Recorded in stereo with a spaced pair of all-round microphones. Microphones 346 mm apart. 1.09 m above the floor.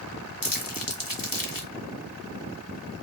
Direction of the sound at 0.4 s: 65° left (ahead or behind).